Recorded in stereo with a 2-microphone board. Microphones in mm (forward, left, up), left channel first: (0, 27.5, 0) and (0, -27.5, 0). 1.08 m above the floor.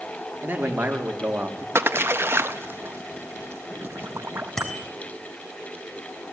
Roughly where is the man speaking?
Right.